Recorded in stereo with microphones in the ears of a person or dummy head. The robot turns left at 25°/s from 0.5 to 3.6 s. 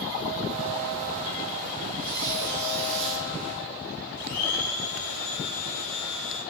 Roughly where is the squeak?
Right.